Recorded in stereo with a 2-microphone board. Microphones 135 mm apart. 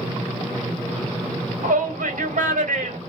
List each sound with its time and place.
1.6 s a shout: 75° right (ahead or behind), 1.6 m